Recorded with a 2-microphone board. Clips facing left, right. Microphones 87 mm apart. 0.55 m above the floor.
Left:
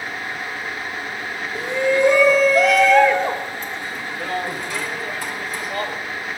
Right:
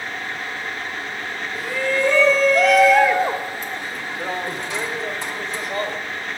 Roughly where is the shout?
Left.